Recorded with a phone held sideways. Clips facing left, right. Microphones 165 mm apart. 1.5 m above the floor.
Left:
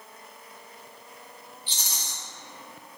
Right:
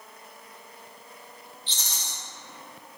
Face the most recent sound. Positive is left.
turn(degrees=10)  # may be behind; listen again after turning